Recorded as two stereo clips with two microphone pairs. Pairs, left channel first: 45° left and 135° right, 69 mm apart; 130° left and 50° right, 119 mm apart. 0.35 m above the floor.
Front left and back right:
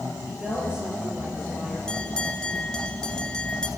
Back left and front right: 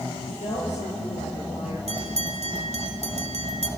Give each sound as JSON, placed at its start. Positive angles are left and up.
{"t": 0.3, "sound": "a woman speaking", "azimuth_deg": 150, "distance_m": 8.0}
{"t": 1.9, "sound": "a bell", "azimuth_deg": -35, "distance_m": 1.1}